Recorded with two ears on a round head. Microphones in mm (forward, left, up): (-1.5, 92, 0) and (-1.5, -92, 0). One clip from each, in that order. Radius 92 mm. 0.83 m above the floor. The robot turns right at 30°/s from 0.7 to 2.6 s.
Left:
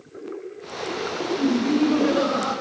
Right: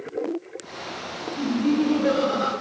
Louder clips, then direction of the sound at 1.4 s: Left 1 dB; 175° right.